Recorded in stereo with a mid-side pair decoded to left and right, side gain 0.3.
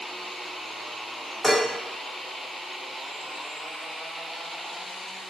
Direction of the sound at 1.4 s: Straight ahead.